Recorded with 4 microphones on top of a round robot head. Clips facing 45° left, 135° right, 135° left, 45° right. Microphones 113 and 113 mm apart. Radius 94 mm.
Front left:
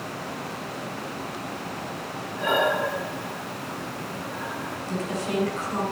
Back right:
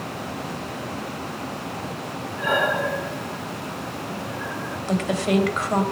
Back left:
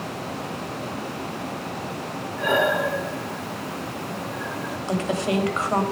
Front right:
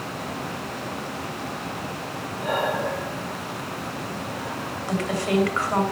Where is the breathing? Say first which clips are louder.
Even, back left 4 dB; 120° left, 2.5 m.